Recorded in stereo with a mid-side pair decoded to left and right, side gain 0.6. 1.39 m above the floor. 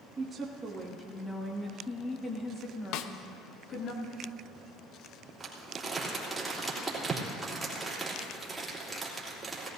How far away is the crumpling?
About 3 m.